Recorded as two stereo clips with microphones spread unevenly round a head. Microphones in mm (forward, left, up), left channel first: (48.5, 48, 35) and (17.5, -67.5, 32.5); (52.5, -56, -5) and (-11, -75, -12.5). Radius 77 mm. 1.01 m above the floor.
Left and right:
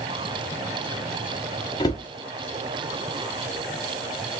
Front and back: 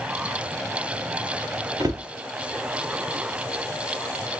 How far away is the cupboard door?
About 0.8 m.